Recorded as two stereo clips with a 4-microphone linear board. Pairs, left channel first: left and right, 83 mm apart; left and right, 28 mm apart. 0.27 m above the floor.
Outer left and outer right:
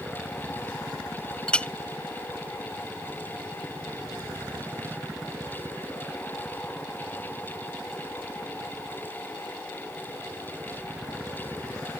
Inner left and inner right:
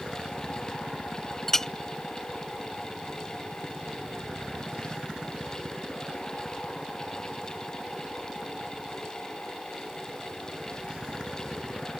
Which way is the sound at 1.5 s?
15° left (ahead or behind).